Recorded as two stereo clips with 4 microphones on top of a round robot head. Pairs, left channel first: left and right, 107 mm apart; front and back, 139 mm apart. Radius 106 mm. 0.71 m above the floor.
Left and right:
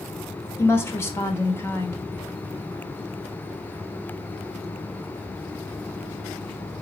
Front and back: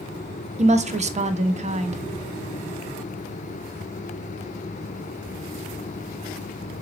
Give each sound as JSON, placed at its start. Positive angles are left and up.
{"t": 0.6, "sound": "a woman speaking", "azimuth_deg": 155, "distance_m": 0.7}